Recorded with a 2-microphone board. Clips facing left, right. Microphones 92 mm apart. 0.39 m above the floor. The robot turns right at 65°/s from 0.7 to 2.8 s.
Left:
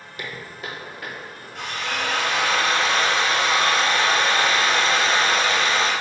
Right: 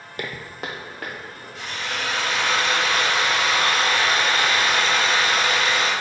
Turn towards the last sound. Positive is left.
turn(degrees=145)